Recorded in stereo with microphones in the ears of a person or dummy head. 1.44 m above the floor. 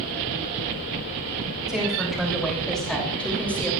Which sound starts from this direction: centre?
A woman speaking, at 1.7 s.